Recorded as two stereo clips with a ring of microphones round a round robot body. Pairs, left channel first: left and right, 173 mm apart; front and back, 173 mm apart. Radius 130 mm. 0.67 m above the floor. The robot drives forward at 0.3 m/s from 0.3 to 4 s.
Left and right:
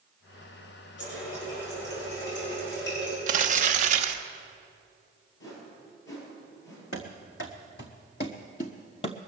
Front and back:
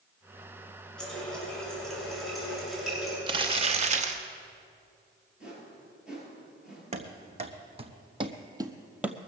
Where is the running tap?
85° left, 6.5 m; by 3.2 s 90° left, 6.5 m.